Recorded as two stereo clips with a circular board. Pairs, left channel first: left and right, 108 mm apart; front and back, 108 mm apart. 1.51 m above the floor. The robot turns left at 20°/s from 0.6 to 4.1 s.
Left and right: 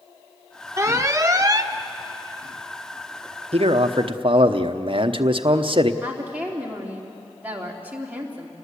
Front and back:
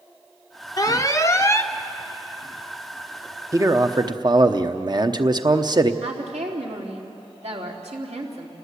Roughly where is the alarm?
Ahead right.